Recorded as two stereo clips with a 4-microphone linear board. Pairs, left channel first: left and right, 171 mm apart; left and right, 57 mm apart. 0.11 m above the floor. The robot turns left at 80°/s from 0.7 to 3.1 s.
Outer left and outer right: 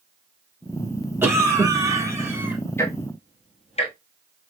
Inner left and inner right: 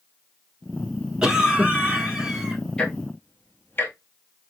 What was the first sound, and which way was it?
A cough, 15° right (ahead or behind).